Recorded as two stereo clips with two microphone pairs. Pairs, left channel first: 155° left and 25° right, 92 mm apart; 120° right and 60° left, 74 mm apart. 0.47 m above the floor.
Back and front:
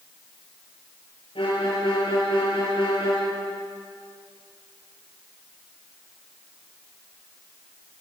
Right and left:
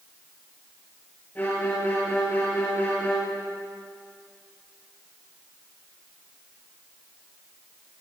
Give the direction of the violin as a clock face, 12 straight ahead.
6 o'clock.